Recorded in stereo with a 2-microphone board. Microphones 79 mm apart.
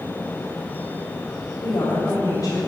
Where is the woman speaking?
65° left (ahead or behind), 2.5 m.